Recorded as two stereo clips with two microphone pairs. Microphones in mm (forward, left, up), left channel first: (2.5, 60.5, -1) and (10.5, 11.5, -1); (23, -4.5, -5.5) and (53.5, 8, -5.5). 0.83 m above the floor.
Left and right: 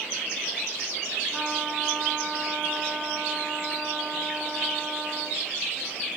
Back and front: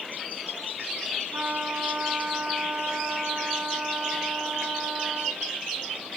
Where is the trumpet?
15° left, 1.9 m.